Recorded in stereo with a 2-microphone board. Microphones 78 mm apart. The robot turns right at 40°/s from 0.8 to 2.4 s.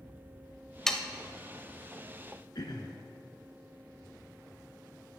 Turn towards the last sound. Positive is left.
turn(degrees=60)  # may be behind; listen again after turning